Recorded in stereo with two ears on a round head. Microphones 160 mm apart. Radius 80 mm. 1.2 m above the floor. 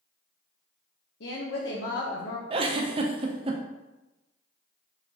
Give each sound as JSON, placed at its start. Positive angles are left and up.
{"t": 1.2, "sound": "a woman speaking", "side_deg": 70, "distance_m": 0.8}
{"t": 2.5, "sound": "a giggle", "side_deg": -30, "distance_m": 0.5}